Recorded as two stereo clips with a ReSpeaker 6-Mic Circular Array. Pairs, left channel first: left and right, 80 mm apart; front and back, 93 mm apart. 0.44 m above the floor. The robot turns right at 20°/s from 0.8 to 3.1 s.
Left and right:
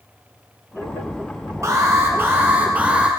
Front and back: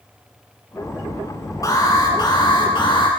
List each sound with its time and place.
1.6 s an alarm: 45° right, 6 m; by 3.1 s 15° right, 6 m